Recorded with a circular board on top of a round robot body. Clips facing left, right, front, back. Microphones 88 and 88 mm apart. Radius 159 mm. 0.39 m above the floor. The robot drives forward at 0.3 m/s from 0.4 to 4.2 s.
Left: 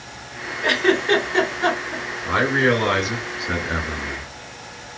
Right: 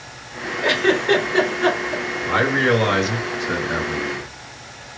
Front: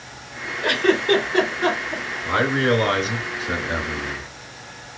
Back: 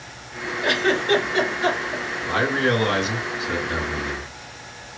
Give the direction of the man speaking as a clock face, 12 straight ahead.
12 o'clock.